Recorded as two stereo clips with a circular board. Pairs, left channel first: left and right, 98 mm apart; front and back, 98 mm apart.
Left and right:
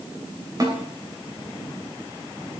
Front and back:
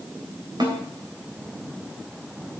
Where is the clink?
No clink in this recording.